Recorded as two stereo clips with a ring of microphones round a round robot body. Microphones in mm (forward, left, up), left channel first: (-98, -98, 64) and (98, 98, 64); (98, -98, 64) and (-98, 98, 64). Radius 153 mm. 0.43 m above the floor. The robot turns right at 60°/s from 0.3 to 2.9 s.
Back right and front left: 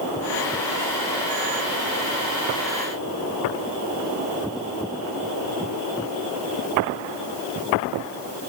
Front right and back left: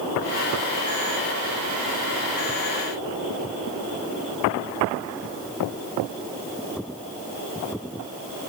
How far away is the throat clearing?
No throat clearing in this recording.